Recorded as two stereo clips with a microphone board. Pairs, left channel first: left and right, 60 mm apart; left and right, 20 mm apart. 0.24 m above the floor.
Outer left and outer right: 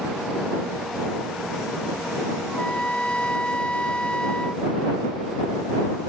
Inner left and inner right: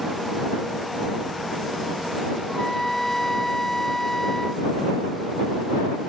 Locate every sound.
2.5 s a trumpet: 20° left (ahead or behind)